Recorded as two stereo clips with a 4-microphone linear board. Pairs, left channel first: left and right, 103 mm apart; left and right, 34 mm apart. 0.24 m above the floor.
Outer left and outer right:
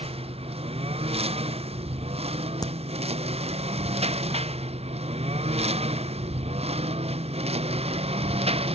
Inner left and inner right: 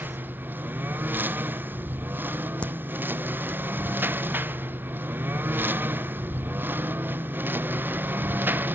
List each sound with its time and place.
0.0 s a lawn mower: 75° right (ahead or behind)
2.6 s a crack: 40° left (ahead or behind)